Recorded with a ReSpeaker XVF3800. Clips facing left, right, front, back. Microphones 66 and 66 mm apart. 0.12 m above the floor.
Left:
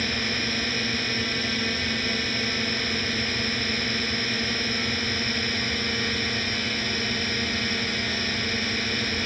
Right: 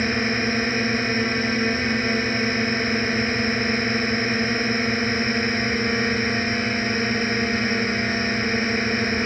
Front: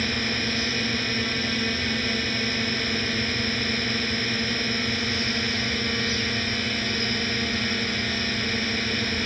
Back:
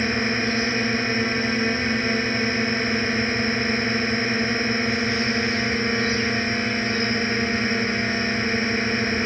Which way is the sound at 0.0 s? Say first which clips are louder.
Right 6 dB, back 5 dB; 130° right.